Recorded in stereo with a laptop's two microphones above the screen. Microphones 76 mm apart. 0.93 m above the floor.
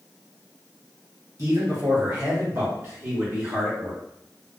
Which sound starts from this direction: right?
A man speaking, at 1.4 s.